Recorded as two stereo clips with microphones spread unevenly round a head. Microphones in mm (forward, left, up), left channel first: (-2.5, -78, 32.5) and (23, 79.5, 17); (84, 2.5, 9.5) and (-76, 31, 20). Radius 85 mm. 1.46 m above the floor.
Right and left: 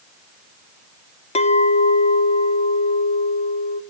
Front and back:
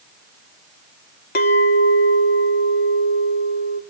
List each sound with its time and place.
1.4 s a clink: 50° right, 0.8 m